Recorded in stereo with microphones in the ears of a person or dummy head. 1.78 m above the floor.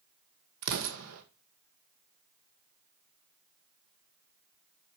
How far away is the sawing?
No sawing in this recording.